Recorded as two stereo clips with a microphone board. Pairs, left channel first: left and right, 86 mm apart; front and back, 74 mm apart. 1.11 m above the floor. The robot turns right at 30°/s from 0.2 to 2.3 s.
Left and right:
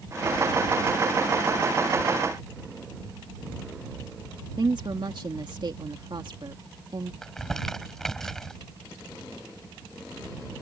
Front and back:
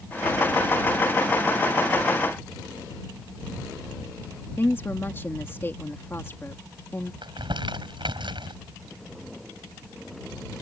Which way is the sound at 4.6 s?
60° right.